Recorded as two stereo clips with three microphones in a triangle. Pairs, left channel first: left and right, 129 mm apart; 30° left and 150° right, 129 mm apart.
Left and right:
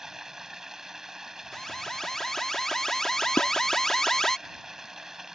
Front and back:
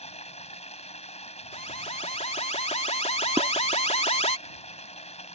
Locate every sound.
0.0 s running water: 5° right
1.5 s an alarm: 5° left
3.4 s dishes clattering: 160° left